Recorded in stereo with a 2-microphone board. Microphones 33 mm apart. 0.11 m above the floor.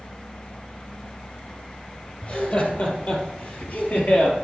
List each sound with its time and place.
2.2 s laughter: 50° left (ahead or behind), 3 m; by 4.3 s 55° left (ahead or behind), 2.5 m